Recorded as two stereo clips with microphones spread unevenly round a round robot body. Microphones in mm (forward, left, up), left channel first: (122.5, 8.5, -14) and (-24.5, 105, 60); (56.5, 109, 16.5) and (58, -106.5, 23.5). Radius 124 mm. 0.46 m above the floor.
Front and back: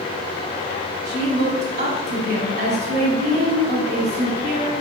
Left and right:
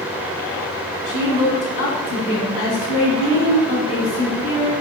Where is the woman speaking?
95° left, 3 m.